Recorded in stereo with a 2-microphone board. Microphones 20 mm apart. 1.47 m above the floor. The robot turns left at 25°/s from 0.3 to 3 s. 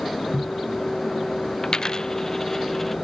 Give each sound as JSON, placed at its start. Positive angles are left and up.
{"t": 1.6, "sound": "a dropped coin", "side_deg": 45}